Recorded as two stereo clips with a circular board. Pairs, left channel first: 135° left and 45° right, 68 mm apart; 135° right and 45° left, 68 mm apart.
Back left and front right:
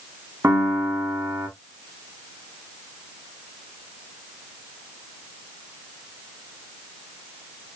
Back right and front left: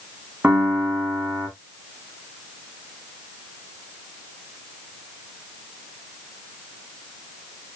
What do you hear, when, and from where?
0.4 s a piano: 10° right, 1.8 m